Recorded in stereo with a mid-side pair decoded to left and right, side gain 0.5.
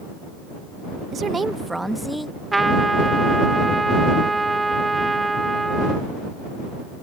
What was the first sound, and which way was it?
A woman speaking, 55° right.